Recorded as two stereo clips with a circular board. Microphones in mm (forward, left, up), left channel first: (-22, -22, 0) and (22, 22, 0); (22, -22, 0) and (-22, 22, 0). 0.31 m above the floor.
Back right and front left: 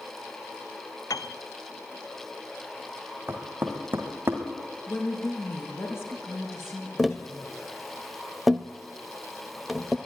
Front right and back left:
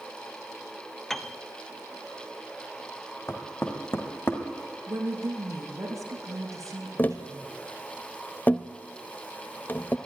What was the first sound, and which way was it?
A piano, 130° right.